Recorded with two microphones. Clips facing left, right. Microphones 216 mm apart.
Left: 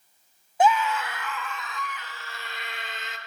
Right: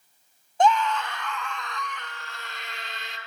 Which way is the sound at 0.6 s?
10° left (ahead or behind).